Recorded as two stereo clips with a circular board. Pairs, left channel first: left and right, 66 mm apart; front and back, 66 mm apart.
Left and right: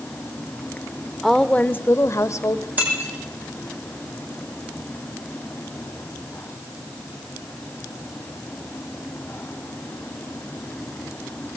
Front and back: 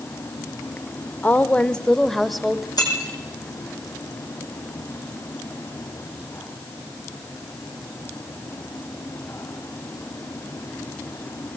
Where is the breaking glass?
25° right, 7 m.